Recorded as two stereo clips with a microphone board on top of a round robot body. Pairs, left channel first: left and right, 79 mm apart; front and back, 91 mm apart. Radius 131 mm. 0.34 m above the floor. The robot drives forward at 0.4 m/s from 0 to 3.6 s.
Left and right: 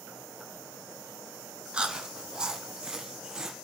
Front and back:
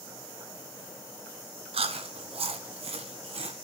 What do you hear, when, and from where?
1.7 s chewing: 170° right, 1.2 m; by 3.5 s 175° right, 1.9 m